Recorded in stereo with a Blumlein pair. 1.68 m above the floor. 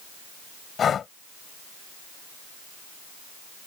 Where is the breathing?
25° left.